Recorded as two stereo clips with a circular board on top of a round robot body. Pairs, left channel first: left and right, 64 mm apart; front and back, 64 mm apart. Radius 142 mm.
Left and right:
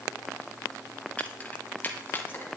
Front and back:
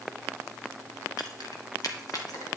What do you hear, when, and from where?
1.2 s keys jangling: 20° left, 1.9 m; by 2.5 s 30° left, 3 m